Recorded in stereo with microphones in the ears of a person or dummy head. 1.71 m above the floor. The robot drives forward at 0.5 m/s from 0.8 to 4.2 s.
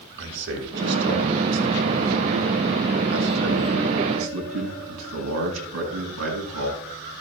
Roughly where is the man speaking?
Right.